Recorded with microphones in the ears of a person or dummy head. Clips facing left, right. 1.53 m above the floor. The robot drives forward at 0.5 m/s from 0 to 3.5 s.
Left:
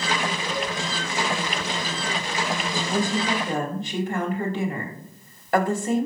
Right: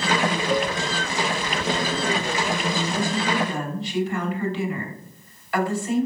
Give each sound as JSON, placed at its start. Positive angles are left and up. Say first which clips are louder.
{"t": 0.5, "sound": "a cowbell", "louder": "right 6 dB", "side_deg": -45, "distance_m": 0.8}
{"t": 2.9, "sound": "a woman speaking", "louder": "even", "side_deg": 35, "distance_m": 2.5}